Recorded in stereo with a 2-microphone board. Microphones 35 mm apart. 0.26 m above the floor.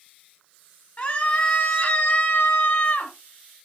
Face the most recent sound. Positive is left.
turn(degrees=50)  # may be behind; listen again after turning